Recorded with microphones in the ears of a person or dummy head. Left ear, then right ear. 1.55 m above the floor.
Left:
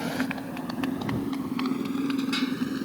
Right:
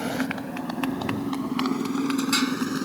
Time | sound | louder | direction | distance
0.0 | a motorcycle | right 2 dB | 15° right (ahead or behind) | ?